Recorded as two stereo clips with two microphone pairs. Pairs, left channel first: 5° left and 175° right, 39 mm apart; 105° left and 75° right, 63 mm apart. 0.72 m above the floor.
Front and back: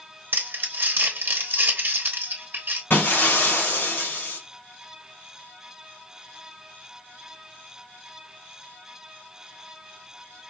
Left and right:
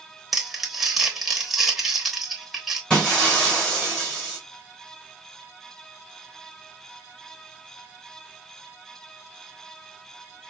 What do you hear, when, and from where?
0.3 s crumpling: 165° right, 0.9 m
2.9 s breaking glass: 30° left, 2 m